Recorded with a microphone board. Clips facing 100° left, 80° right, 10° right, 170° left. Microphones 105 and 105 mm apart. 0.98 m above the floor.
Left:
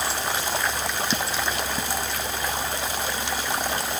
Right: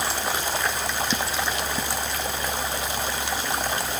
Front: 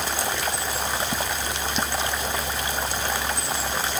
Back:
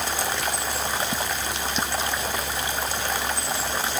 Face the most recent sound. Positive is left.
No sound to turn to.